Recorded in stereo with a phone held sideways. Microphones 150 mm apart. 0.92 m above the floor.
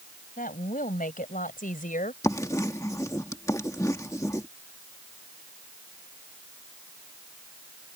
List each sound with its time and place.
0.4 s a woman speaking: 70° left (ahead or behind); by 2.1 s 65° left (ahead or behind)
2.2 s writing: 20° left (ahead or behind)